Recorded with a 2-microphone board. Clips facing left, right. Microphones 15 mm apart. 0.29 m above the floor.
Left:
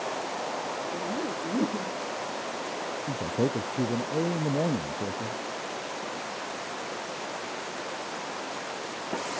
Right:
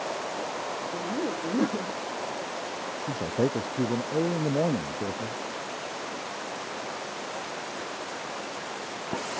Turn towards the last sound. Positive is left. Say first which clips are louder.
# right 1 dB
turn(degrees=-25)  # may be behind; listen again after turning